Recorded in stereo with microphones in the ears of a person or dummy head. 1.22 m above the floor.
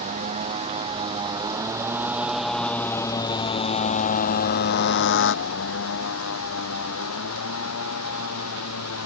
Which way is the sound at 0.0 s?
35° right (ahead or behind).